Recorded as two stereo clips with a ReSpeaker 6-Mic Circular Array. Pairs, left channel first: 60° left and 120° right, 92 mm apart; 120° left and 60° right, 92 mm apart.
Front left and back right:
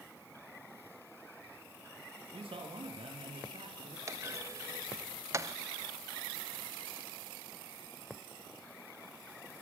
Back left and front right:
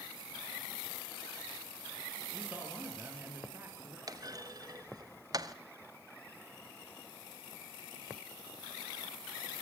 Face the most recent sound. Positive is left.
turn(degrees=-80)